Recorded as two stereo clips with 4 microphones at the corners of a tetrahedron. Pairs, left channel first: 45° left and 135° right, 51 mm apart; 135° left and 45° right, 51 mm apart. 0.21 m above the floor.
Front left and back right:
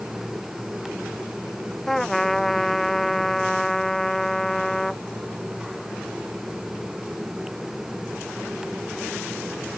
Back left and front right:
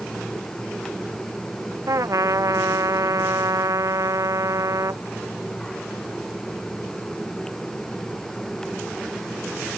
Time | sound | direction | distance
1.9 | a trumpet | 40° right | ?